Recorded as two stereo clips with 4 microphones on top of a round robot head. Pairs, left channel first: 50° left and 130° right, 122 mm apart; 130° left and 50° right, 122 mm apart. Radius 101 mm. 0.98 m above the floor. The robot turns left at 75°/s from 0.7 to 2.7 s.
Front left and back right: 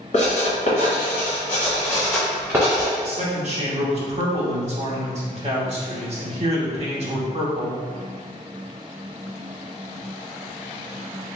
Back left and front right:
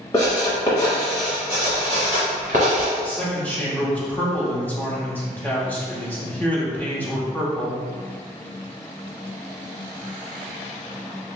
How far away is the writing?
About 0.9 m.